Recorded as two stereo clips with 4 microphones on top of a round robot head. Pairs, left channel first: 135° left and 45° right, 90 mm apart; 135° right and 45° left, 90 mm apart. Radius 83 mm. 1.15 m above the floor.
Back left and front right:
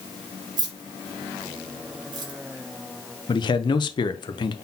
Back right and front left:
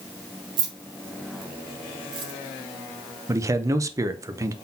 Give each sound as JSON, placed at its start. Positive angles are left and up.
{"t": 0.6, "sound": "keys jangling", "azimuth_deg": 0, "distance_m": 1.1}
{"t": 3.3, "sound": "a man speaking", "azimuth_deg": 100, "distance_m": 0.6}